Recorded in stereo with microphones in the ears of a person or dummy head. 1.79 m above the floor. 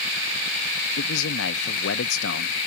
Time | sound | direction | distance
1.0 | a man speaking | 70° left (ahead or behind) | ?